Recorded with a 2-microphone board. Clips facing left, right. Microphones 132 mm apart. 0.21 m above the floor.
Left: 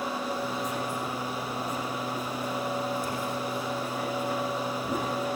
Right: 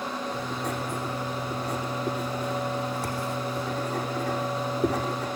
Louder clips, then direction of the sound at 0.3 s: Even; 70° right (ahead or behind).